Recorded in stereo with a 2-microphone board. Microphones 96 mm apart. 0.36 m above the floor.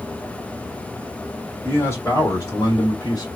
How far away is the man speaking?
About 2 m.